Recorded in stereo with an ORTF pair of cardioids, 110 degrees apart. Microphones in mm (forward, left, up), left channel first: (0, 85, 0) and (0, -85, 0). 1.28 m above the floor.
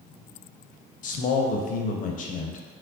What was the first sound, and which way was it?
A man speaking, 55° left.